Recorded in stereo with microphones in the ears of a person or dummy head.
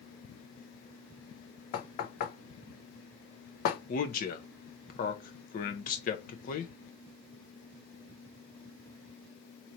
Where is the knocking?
50° left (ahead or behind), 0.6 m.